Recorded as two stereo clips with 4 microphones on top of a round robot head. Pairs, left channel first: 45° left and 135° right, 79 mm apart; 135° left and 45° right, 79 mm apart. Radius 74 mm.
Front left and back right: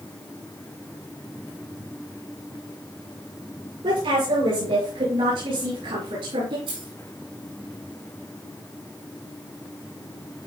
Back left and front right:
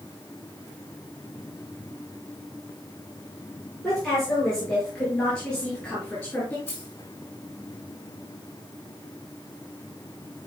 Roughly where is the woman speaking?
Behind right.